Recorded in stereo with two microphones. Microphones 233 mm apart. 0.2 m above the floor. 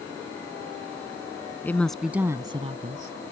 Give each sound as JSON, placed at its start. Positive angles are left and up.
{"t": 1.6, "sound": "a woman speaking", "side_deg": 10}